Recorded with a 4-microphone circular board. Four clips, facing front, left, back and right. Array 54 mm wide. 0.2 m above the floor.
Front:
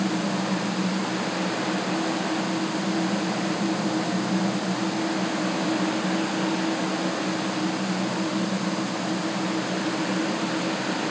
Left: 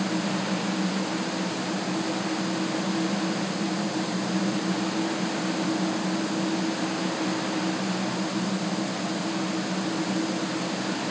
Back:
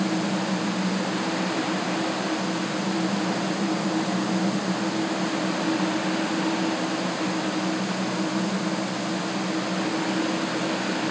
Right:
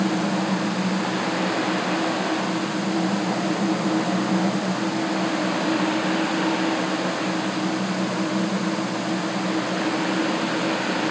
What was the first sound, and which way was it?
Only background noise.